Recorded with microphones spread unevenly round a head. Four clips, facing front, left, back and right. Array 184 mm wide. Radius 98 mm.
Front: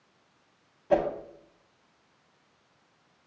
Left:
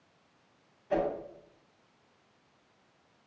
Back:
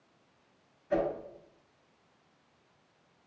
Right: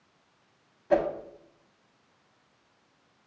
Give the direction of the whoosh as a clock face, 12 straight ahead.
1 o'clock.